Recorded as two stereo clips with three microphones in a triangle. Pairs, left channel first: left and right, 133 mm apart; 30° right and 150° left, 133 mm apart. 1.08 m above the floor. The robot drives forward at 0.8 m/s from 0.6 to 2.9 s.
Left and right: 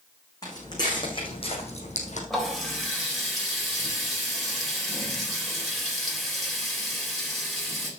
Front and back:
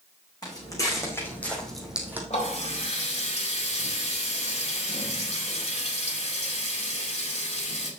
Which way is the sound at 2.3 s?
Straight ahead.